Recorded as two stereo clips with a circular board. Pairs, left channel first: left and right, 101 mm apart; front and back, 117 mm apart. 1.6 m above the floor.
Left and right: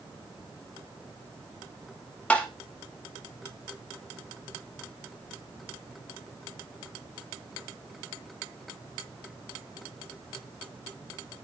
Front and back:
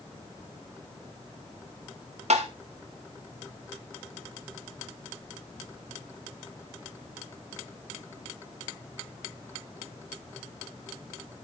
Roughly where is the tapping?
Behind.